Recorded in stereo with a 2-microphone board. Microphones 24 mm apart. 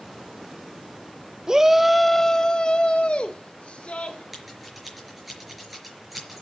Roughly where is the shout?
Right.